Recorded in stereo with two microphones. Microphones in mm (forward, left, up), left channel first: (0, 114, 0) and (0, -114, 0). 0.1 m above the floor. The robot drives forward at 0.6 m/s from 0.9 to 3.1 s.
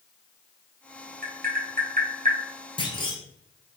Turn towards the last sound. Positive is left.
turn(degrees=20)  # may be behind; listen again after turning